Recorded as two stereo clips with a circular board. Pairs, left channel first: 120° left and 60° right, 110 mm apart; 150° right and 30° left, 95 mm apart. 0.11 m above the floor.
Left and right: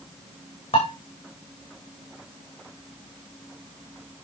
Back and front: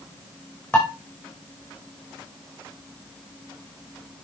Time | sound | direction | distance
0.7 | dishes clattering | 135° left | 5 m